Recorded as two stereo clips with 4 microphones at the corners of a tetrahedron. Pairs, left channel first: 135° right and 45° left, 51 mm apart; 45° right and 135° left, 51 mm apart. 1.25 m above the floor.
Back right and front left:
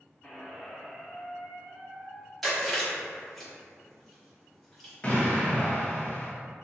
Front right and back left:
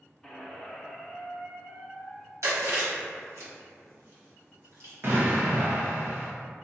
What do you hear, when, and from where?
0.2 s a squeak: 110° right, 0.5 m
2.4 s chewing: 135° left, 1.2 m
5.0 s an explosion: 160° left, 0.8 m